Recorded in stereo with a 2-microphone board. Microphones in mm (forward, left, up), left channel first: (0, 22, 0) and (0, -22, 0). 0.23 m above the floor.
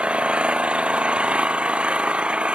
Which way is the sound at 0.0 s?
25° right (ahead or behind).